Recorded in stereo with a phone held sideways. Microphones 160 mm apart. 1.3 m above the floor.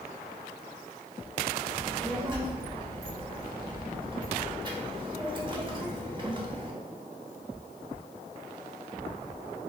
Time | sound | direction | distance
1.7 | a child speaking | 30° right (ahead or behind) | 1.1 m